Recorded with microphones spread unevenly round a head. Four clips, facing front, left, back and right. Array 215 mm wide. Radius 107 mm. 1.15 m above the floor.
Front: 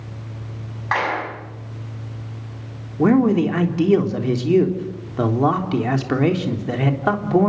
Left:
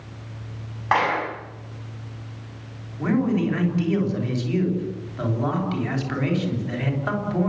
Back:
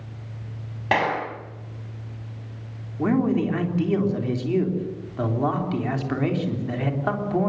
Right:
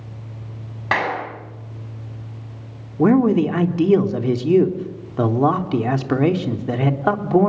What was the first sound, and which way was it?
A clap, 155° right.